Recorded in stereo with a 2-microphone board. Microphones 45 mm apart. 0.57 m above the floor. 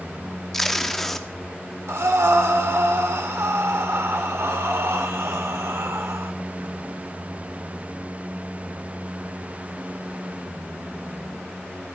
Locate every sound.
0.5 s tape being pulled: 5° left (ahead or behind), 0.6 m
1.9 s breathing: 70° right (ahead or behind), 0.8 m